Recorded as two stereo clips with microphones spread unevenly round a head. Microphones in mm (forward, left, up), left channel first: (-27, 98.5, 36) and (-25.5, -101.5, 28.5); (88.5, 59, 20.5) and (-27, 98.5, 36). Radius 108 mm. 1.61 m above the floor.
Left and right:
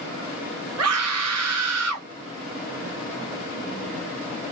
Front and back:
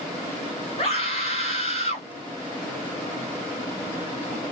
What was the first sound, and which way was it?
A scream, 85° right.